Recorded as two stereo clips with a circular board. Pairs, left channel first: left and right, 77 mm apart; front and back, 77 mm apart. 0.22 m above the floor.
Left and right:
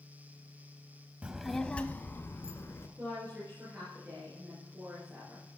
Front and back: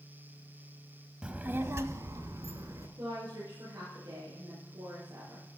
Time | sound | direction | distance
1.2 | a child speaking | 125° right | 0.6 m
3.0 | a woman speaking | 160° right | 5.5 m